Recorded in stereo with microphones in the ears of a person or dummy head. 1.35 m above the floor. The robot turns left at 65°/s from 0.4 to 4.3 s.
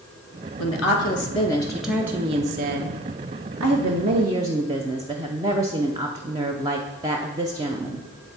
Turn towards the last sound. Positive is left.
turn(degrees=-160)